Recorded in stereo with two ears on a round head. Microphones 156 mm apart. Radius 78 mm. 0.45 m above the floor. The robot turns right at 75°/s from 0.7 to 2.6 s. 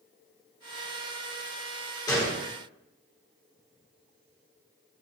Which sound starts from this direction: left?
A gunshot, at 2.1 s.